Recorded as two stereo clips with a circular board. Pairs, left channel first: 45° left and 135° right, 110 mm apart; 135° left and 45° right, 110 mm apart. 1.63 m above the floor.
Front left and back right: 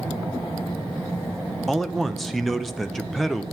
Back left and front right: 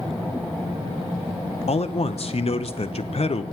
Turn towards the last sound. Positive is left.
turn(degrees=135)